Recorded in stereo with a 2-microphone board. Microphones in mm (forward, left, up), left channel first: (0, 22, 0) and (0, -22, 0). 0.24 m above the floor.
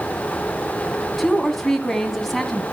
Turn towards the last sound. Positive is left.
turn(degrees=5)  # may be behind; listen again after turning